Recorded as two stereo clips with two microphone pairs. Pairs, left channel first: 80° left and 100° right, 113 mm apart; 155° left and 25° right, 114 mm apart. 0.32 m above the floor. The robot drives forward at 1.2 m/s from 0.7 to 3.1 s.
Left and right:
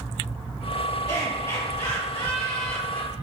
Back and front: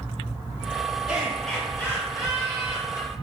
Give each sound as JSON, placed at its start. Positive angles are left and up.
{"t": 1.1, "sound": "laughter", "azimuth_deg": 45, "distance_m": 1.7}